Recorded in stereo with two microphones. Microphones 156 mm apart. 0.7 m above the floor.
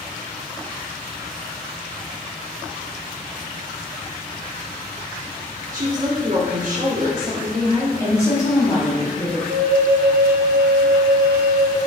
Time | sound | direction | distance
5.7 | a woman speaking | 55° right (ahead or behind) | 1.2 m
8.0 | a woman speaking | 20° left (ahead or behind) | 1.5 m
9.5 | a flute | 70° right (ahead or behind) | 0.5 m